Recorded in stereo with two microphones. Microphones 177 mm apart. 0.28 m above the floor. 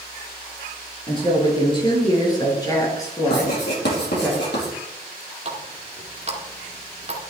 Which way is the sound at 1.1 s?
30° left (ahead or behind).